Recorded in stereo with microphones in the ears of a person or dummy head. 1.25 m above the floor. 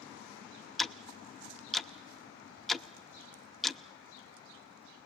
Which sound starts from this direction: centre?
Ticking, at 0.8 s.